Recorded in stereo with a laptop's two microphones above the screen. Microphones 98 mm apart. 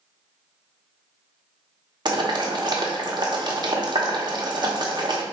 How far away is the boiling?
About 0.8 m.